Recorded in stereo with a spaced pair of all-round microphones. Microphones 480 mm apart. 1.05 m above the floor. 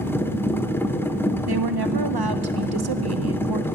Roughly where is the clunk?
No clunk in this recording.